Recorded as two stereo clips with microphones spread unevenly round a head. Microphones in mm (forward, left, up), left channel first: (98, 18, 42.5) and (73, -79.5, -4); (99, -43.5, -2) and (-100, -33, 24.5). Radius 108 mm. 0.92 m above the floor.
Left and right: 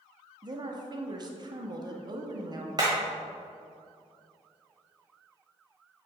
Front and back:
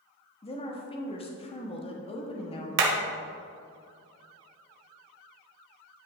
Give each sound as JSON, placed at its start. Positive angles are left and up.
{"t": 0.4, "sound": "a woman speaking", "azimuth_deg": -65, "distance_m": 1.2}
{"t": 2.8, "sound": "hammering", "azimuth_deg": 175, "distance_m": 1.2}